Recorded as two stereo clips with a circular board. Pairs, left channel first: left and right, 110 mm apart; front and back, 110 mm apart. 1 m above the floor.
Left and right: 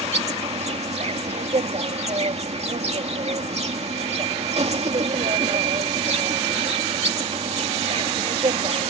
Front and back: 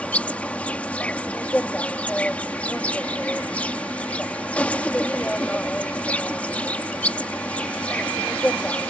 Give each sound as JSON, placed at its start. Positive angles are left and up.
{"t": 0.0, "sound": "an insect", "azimuth_deg": -75}